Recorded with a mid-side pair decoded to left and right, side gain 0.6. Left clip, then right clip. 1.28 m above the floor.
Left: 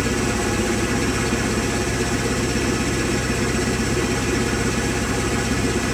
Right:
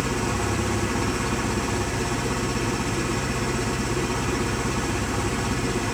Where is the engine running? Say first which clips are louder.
Left 4 dB; 35° left, 8 m.